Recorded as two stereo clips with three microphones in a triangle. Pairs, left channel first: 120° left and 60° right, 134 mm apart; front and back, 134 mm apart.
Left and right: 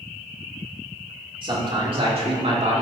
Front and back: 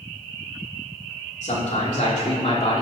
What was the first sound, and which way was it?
A man speaking, 10° right.